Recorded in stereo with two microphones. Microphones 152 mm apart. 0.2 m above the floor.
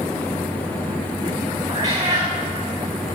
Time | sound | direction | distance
1.7 | a cat meowing | 25° right (ahead or behind) | 4.5 m